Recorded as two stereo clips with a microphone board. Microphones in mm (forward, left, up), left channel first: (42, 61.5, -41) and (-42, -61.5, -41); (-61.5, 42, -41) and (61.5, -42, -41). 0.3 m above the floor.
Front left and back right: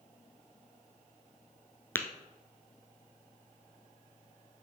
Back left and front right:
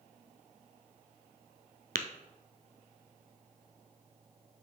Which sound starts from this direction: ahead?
Tapping, at 1.9 s.